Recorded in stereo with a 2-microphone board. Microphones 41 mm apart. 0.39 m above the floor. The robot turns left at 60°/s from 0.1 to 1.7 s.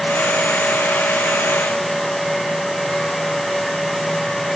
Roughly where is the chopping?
No chopping in this recording.